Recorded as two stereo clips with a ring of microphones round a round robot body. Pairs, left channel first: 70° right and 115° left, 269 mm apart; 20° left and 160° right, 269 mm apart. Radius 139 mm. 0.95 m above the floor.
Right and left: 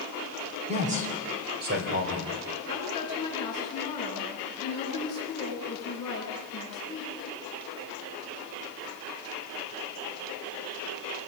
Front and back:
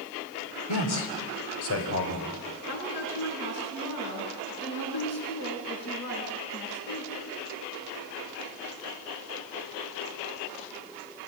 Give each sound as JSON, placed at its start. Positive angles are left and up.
{"t": 0.7, "sound": "a man speaking", "azimuth_deg": 45, "distance_m": 3.0}
{"t": 2.7, "sound": "a woman speaking", "azimuth_deg": 10, "distance_m": 9.5}